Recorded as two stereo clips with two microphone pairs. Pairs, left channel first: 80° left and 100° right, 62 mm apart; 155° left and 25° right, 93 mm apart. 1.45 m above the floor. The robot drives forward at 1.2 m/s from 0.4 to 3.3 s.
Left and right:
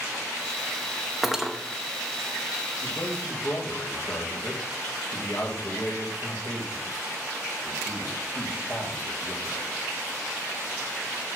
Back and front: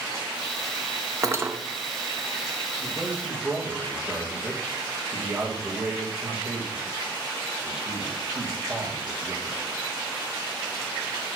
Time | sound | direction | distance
1.2 | cutlery clinking | 15° right | 0.8 m
2.8 | a man speaking | 40° left | 2.5 m